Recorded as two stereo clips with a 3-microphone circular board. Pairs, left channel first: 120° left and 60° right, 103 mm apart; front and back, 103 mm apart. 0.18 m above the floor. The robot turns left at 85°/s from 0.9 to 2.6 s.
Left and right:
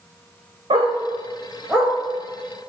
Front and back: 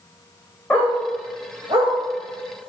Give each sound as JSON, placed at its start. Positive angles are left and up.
{"t": 0.7, "sound": "a dog barking", "azimuth_deg": -75, "distance_m": 3.0}